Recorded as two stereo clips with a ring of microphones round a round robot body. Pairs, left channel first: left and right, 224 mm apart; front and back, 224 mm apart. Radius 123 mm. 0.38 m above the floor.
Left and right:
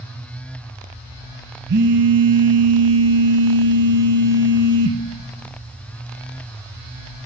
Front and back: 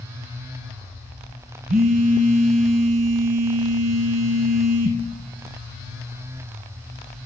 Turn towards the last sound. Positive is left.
turn(degrees=-130)